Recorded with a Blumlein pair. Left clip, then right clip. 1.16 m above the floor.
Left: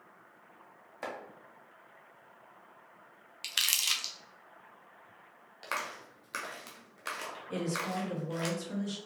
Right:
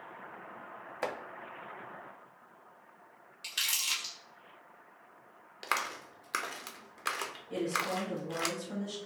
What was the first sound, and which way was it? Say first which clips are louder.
Chopping: right 4 dB; 70° right.